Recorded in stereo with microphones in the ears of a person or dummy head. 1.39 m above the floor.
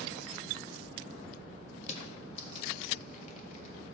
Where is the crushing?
45° left (ahead or behind), 1.3 m.